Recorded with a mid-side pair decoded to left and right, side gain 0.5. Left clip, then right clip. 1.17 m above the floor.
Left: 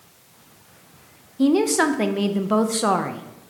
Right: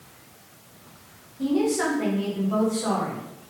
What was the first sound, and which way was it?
A woman speaking, 70° left.